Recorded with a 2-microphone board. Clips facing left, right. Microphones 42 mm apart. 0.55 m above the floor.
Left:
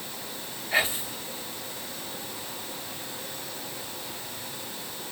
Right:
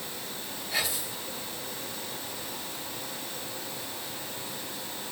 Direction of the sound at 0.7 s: 40° left (ahead or behind).